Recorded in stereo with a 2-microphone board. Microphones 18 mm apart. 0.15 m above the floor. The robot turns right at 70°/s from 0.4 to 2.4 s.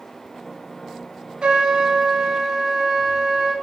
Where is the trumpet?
105° right, 0.6 m; by 3.5 s 35° right, 0.6 m.